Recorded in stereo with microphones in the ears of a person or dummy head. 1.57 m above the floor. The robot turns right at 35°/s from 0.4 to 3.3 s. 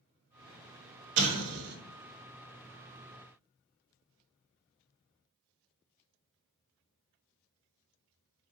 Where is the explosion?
70° right (ahead or behind), 0.6 m; by 1.8 s 55° right (ahead or behind), 0.6 m.